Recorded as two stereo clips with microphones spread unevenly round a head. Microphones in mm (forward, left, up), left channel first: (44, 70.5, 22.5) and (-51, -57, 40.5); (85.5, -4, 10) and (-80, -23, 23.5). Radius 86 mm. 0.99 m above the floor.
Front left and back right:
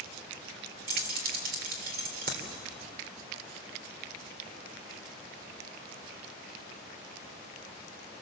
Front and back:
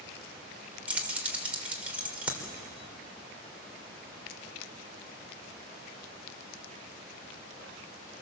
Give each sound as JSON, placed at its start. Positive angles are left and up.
{"t": 0.9, "sound": "keys jangling", "azimuth_deg": -90, "distance_m": 3.0}